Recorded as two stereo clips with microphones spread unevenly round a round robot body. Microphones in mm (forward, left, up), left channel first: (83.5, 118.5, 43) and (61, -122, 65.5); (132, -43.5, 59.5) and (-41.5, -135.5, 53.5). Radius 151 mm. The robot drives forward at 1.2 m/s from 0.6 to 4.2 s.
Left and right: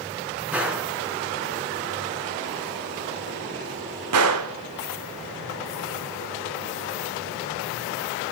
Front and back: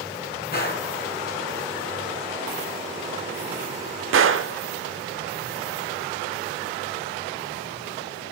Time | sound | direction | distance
0.5 | a gunshot | 10° right | 3.5 m